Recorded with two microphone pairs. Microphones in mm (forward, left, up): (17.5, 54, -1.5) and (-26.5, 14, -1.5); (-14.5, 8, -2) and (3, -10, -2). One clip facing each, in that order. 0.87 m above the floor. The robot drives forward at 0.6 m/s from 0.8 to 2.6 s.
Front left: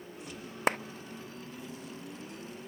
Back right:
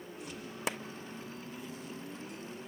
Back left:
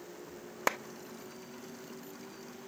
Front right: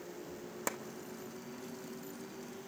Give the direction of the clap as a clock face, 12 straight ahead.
9 o'clock.